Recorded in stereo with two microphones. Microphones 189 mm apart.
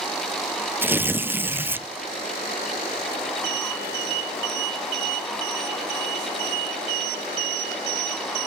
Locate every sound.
0.8 s tearing paper: 10° right (ahead or behind), 0.6 m